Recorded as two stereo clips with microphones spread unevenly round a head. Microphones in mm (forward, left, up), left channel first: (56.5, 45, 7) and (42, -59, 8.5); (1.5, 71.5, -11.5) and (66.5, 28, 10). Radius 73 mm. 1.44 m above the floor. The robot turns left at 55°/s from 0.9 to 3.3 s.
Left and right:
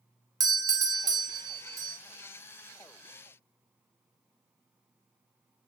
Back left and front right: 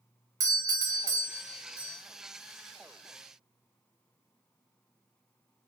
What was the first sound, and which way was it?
A doorbell, 80° right.